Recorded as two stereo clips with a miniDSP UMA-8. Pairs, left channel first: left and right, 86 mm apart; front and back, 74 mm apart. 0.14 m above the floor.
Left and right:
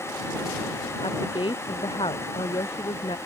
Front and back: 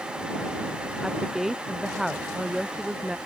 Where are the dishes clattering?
No dishes clattering in this recording.